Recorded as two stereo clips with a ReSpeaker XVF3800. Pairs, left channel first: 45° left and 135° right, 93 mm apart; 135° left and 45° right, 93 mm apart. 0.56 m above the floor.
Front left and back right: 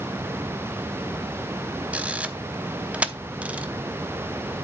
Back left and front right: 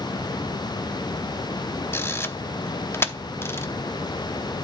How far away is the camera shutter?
About 0.7 m.